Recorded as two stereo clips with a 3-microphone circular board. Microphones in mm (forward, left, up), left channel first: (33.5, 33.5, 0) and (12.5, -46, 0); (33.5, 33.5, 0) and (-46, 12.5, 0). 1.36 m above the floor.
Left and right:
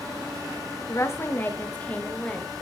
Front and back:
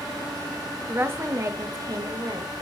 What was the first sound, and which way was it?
A woman speaking, 130° left.